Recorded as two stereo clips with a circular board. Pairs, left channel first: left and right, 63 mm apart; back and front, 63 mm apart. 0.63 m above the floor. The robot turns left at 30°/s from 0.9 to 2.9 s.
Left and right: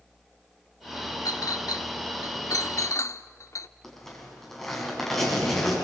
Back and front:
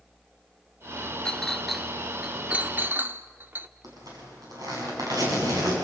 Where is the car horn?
I don't hear a car horn.